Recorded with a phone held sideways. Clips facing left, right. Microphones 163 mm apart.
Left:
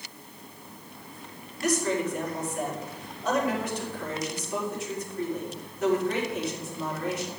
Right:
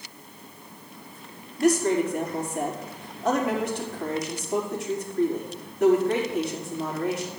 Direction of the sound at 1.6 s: 70° right (ahead or behind).